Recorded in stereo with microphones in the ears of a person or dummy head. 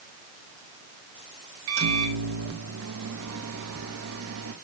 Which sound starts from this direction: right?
A microwave, at 1.7 s.